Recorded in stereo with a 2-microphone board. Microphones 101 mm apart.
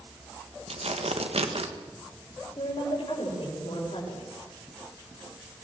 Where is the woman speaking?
70° left (ahead or behind), 7.5 m.